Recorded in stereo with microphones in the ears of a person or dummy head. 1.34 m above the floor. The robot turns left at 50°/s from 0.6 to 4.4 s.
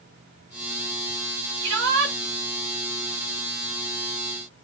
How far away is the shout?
About 2 m.